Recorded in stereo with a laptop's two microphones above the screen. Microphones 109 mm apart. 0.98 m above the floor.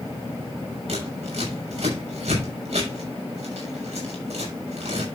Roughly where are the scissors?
Right.